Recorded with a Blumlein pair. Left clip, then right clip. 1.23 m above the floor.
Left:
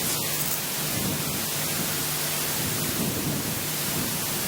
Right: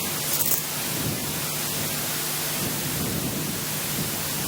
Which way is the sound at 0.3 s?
70° right.